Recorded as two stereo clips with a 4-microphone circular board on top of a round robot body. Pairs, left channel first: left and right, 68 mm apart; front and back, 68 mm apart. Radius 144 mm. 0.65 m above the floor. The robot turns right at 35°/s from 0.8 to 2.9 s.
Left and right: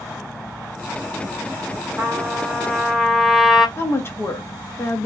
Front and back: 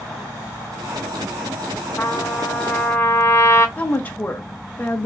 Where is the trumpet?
40° right, 1.4 m; by 3.7 s 10° right, 1.4 m.